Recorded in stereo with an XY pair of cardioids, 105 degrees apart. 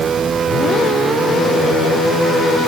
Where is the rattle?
No rattle in this recording.